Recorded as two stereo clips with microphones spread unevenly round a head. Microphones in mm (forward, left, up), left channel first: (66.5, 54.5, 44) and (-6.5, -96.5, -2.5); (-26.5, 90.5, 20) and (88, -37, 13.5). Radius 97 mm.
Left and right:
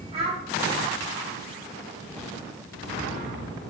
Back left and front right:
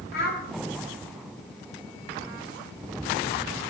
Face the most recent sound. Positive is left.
turn(degrees=175)